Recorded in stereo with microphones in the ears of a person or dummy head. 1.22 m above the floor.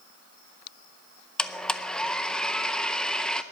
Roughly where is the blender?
Centre.